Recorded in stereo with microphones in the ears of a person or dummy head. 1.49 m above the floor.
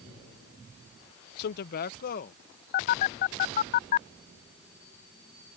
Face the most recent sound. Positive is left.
turn(degrees=50)  # may be behind; listen again after turning